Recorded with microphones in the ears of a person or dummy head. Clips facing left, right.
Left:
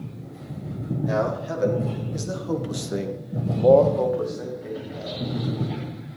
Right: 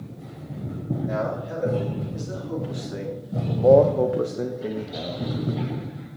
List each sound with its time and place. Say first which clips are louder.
1.1 s a man speaking: left 5 dB; 75° left (ahead or behind), 3 m; by 5.2 s 75° right (ahead or behind), 1.8 m